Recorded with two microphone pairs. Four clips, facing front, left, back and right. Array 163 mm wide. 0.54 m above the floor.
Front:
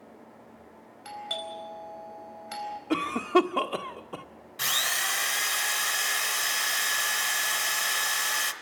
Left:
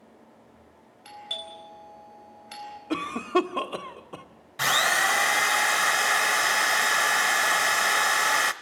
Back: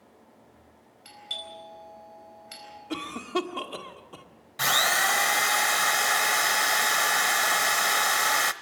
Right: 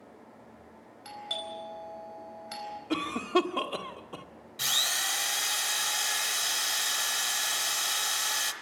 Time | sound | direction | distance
1.1 | a doorbell | 5° right | 4.5 m
2.9 | a cough | 20° left | 1.3 m
4.6 | a drill | 130° left | 0.8 m